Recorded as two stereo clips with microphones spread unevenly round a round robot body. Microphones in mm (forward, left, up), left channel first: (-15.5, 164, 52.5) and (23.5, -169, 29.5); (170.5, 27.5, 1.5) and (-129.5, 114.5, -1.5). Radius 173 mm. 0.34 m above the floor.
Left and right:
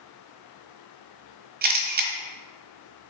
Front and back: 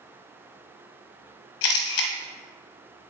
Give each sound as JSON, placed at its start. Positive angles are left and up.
{"t": 1.6, "sound": "a camera shutter", "azimuth_deg": -25, "distance_m": 1.2}